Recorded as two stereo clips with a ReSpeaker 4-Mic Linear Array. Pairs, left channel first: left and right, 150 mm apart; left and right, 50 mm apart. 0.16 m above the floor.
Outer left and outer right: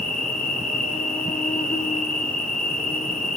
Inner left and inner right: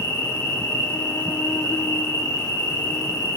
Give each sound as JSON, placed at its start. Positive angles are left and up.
{"t": 0.0, "sound": "an insect", "side_deg": 65, "distance_m": 0.9}